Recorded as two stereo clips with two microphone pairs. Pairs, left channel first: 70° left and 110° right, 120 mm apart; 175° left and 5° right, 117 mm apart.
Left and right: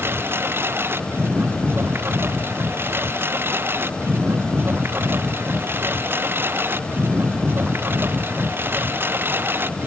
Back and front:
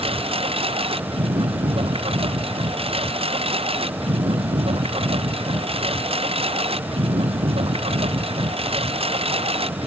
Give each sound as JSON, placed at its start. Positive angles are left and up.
{"t": 0.0, "sound": "a lawn mower", "azimuth_deg": -40}